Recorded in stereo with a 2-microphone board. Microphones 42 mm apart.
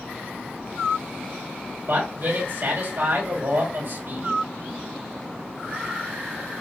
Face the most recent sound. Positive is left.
turn(degrees=-65)  # may be behind; listen again after turning